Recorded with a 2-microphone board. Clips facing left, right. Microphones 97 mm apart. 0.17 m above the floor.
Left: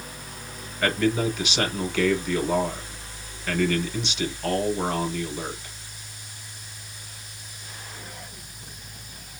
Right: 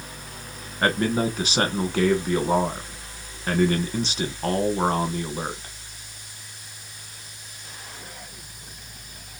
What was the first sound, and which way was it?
A man speaking, 40° right (ahead or behind).